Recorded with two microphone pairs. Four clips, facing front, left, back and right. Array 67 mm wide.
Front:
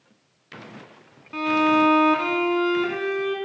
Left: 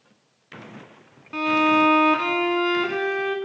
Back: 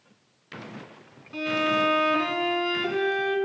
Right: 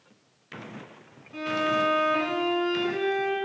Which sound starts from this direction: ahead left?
A violin, at 1.3 s.